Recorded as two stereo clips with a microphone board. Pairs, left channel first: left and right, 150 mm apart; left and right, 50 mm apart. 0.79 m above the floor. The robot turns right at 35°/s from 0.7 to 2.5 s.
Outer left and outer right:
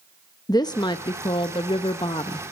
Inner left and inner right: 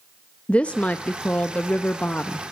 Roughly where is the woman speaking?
Ahead left.